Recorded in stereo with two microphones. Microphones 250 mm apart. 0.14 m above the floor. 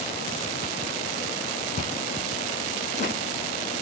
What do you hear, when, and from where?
1.8 s chewing: 25° left (ahead or behind), 3.5 m